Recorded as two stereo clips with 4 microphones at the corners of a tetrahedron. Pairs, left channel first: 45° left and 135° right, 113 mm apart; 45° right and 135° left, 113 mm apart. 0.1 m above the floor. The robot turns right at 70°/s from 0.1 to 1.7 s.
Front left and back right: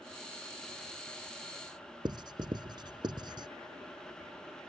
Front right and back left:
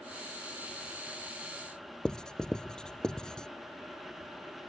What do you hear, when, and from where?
2.0 s writing: 125° right